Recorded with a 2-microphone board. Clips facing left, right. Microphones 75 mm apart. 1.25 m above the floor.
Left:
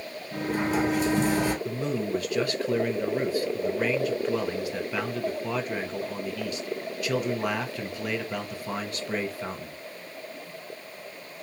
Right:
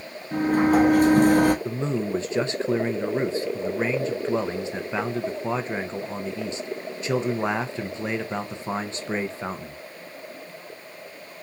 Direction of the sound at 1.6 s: 25° right (ahead or behind).